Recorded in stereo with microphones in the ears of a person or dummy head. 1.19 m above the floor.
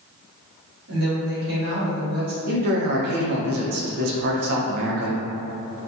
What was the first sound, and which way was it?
A woman speaking, 50° right (ahead or behind).